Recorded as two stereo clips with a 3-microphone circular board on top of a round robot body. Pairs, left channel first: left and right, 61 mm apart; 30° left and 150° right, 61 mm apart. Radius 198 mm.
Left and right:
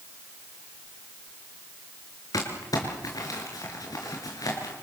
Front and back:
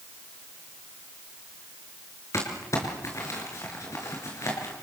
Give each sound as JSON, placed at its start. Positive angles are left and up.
{"t": 2.3, "sound": "crumpling", "azimuth_deg": 70, "distance_m": 5.5}